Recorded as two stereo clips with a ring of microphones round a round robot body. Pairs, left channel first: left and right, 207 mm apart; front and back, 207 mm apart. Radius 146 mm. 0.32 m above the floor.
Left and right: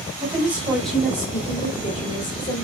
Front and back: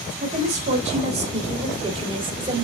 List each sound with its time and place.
0.2 s a woman speaking: 155° right, 1.6 m; by 2.6 s 120° left, 2 m